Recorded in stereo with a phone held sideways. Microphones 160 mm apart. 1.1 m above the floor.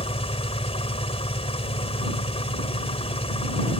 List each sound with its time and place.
0.0 s an engine running: 40° left (ahead or behind)